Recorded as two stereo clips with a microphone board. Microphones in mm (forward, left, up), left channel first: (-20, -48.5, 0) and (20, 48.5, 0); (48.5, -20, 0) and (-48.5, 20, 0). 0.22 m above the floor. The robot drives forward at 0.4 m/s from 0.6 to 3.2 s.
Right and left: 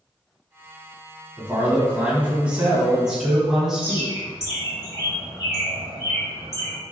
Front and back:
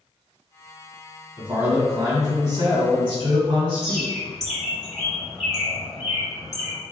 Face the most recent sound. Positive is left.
turn(degrees=-110)